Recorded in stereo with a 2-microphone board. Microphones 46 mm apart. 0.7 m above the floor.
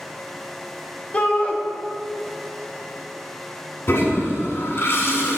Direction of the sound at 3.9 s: 60° left (ahead or behind).